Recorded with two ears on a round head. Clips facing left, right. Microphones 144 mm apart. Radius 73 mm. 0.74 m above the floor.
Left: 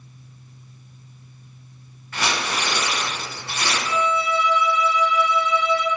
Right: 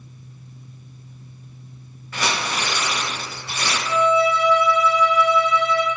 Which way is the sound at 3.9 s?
40° right (ahead or behind).